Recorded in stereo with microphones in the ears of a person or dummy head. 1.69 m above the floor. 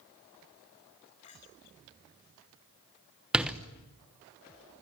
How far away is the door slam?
About 1.1 m.